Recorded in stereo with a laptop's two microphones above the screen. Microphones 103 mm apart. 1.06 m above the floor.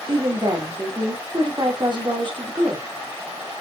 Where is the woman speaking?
45° right (ahead or behind), 2.5 m.